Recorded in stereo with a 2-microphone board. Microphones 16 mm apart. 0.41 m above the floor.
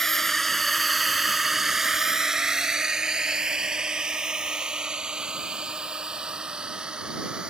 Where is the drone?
25° left (ahead or behind); by 7.5 s 75° right (ahead or behind).